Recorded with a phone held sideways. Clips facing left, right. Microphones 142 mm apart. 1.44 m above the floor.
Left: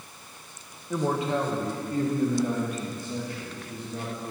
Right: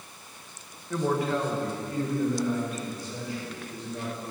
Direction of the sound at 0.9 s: 15° left (ahead or behind).